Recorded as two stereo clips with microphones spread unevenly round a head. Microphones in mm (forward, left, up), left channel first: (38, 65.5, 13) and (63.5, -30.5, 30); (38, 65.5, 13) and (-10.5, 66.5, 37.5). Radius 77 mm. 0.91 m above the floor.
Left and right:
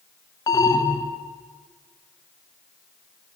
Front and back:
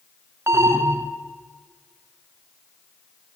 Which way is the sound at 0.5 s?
135° left.